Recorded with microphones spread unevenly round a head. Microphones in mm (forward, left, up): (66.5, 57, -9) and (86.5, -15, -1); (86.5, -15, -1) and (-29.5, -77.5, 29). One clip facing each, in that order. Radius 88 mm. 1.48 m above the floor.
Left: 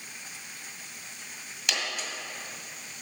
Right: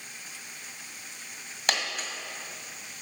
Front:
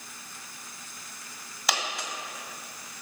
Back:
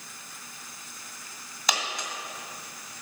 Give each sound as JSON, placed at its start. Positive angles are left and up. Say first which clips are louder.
{"t": 1.7, "sound": "a dropped coin", "louder": "right 3 dB, even", "azimuth_deg": -65, "distance_m": 1.9}